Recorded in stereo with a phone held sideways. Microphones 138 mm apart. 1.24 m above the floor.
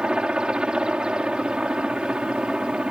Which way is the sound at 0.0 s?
5° right (ahead or behind).